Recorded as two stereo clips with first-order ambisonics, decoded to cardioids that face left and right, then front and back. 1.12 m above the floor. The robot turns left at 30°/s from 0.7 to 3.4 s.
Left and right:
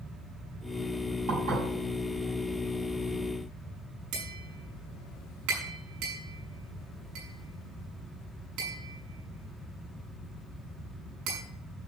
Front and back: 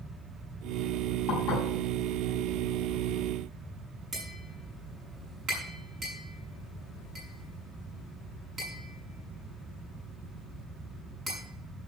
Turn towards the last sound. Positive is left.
turn(degrees=-110)